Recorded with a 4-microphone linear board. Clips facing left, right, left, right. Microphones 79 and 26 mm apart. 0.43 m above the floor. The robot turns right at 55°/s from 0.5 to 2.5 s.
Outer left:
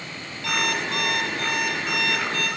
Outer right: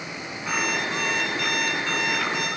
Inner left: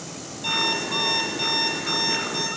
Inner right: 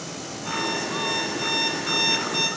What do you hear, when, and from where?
0.4 s an alarm clock: 95° left, 8 m; by 2.5 s 155° right, 8 m